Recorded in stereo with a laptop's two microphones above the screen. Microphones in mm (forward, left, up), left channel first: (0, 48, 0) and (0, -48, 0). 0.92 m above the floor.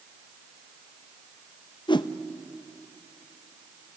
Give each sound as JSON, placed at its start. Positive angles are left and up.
{"t": 1.9, "sound": "a whoosh", "side_deg": 55, "distance_m": 0.5}